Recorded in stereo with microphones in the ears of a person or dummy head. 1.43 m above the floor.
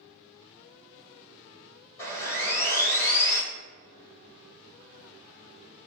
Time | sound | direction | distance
2.0 | sawing | 20° left (ahead or behind) | 1.6 m